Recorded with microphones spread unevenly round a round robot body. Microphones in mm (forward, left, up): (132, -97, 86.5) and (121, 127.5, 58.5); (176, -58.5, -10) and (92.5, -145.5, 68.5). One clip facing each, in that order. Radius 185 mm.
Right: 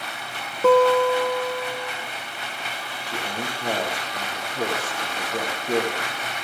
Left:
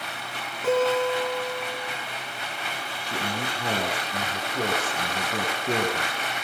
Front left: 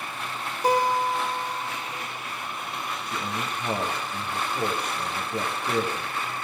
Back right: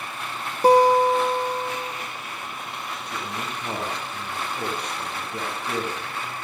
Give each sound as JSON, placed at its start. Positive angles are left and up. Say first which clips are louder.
{"t": 0.6, "sound": "a guitar", "louder": "right 6 dB, back right 8 dB", "azimuth_deg": -150, "distance_m": 4.0}
{"t": 3.0, "sound": "a man speaking", "louder": "even, even", "azimuth_deg": 120, "distance_m": 8.0}